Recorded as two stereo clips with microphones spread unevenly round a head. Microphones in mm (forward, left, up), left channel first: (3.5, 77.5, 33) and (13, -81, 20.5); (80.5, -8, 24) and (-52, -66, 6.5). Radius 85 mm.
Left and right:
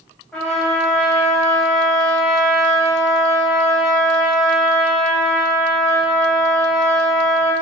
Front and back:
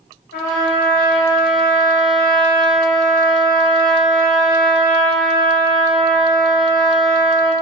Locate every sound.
0.3 s a trumpet: 10° left, 3 m